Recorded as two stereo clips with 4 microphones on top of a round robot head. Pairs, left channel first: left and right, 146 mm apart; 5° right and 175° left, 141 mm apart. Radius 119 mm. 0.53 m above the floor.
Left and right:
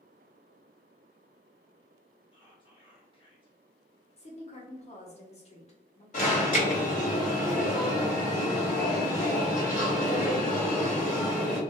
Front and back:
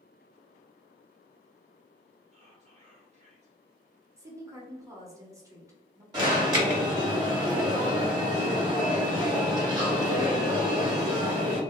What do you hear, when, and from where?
2.3 s whispering: 140° left, 1.6 m
4.2 s a woman speaking: 110° left, 1.0 m
6.1 s an alarm: 115° left, 1.6 m